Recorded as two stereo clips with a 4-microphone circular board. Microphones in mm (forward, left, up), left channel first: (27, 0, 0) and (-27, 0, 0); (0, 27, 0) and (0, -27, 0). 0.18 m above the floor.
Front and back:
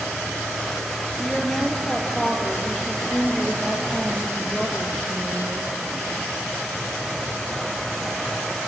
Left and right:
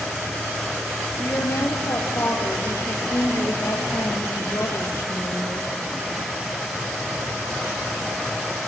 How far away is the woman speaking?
About 3.5 m.